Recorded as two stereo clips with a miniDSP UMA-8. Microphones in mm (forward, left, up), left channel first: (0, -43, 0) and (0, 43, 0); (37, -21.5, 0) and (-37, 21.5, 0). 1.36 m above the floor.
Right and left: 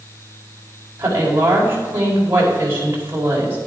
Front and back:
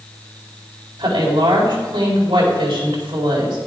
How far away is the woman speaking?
About 4 m.